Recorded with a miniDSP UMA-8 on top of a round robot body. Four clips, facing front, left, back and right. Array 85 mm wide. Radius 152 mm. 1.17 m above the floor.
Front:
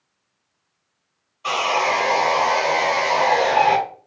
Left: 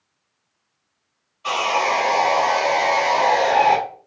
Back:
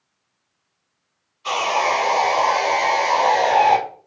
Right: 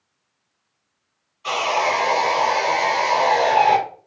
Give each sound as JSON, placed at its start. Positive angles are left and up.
{"t": 1.4, "sound": "sawing", "azimuth_deg": 0, "distance_m": 1.8}